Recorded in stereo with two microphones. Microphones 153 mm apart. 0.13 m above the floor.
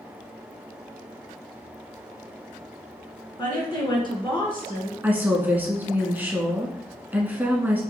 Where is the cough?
No cough in this recording.